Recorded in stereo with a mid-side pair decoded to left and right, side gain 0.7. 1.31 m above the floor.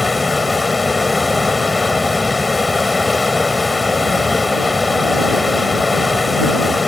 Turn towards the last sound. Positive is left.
turn(degrees=15)